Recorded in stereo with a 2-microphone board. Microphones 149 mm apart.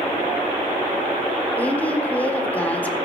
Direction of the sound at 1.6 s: 10° left (ahead or behind).